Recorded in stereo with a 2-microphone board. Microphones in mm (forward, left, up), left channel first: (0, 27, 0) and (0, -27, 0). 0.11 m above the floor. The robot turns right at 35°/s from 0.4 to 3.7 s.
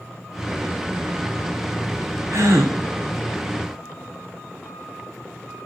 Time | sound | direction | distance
2.3 | a gasp | 60° right (ahead or behind) | 3 m